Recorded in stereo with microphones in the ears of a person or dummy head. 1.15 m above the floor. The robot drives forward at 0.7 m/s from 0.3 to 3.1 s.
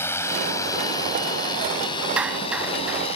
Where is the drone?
15° left (ahead or behind); by 3.2 s 35° left (ahead or behind).